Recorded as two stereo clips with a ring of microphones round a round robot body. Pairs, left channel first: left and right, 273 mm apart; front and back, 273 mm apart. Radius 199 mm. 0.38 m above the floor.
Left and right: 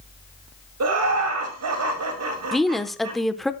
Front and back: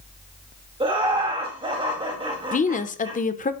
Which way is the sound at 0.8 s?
105° right.